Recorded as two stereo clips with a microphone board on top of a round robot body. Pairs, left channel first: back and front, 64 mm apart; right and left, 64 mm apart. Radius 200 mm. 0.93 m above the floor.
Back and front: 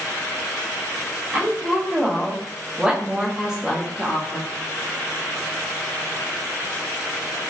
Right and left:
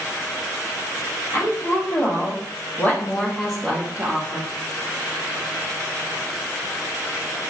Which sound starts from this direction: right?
A woman speaking, at 1.3 s.